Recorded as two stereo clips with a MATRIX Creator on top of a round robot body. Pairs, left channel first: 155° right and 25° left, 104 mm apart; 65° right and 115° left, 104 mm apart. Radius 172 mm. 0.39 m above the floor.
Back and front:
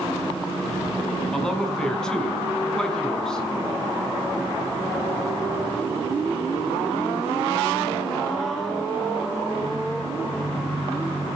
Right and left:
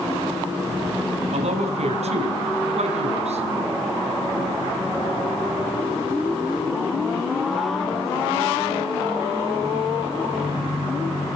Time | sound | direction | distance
1.3 | a man speaking | 120° left | 5 m